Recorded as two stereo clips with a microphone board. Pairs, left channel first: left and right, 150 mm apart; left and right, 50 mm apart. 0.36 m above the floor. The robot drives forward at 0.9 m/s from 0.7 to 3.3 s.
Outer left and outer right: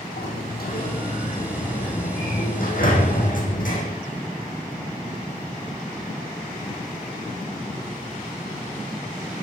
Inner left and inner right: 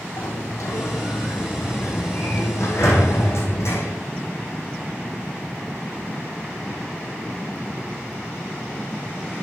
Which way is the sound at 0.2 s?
85° left.